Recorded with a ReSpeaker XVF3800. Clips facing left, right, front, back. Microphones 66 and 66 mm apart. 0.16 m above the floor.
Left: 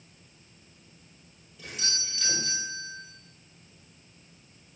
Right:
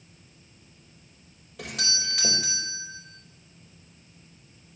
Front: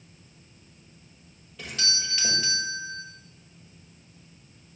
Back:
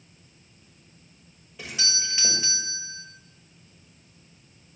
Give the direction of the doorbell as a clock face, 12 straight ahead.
4 o'clock.